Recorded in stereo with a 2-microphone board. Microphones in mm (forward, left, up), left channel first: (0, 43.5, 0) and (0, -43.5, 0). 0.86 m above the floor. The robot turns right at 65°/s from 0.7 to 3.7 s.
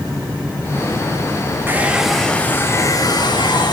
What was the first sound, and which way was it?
A hair dryer, 30° right.